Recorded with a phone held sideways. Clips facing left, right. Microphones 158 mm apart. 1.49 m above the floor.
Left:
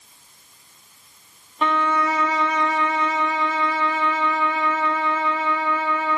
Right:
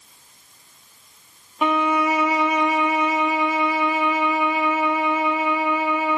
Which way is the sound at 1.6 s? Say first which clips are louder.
Right 2 dB; 10° right (ahead or behind).